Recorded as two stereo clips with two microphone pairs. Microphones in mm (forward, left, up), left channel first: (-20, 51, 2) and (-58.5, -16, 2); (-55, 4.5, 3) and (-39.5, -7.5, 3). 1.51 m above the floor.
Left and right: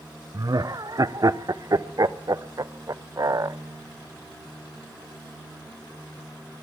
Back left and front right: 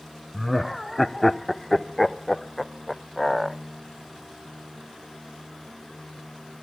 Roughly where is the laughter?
Behind right.